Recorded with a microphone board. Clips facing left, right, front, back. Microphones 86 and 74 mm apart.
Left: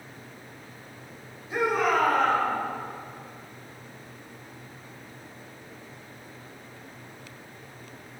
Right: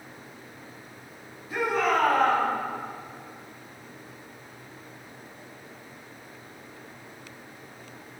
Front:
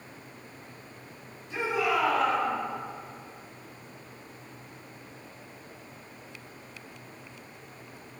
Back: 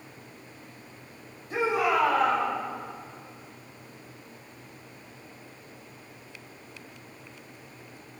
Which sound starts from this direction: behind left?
A shout, at 1.5 s.